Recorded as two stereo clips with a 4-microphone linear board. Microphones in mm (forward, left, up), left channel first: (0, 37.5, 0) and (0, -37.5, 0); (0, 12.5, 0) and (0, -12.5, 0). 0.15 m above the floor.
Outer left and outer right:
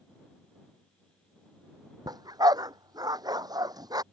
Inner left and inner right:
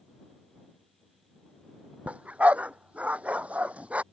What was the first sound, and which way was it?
A dog barking, 60° right (ahead or behind).